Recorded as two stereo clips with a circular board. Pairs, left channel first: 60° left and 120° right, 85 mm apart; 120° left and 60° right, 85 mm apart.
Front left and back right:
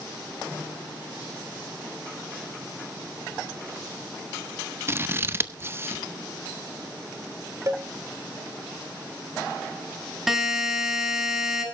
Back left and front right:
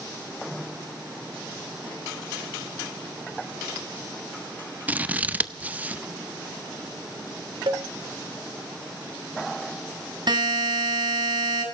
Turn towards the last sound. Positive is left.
turn(degrees=-35)